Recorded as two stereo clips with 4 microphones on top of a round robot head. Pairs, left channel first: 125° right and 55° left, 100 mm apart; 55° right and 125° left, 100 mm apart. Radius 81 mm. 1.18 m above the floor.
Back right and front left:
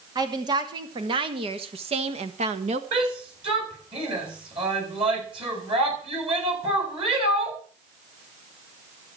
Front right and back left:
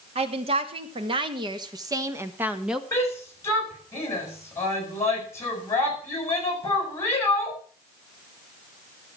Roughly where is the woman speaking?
Left.